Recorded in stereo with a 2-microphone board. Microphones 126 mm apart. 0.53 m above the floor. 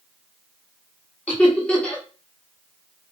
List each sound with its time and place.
1.3 s laughter: 10° left (ahead or behind), 1.0 m